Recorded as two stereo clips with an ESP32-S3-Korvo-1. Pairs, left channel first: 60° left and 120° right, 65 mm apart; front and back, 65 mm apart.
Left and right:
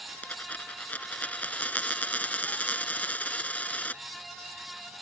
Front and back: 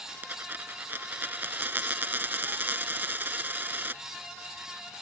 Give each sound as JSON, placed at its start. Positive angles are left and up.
{"t": 0.2, "sound": "a dropped coin", "azimuth_deg": 125}